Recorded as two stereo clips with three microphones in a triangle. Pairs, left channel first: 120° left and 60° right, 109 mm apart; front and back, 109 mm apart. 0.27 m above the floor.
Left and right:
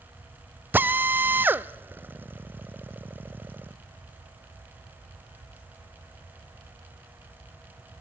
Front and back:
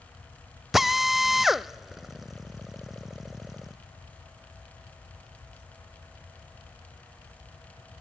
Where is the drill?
95° right, 0.6 m.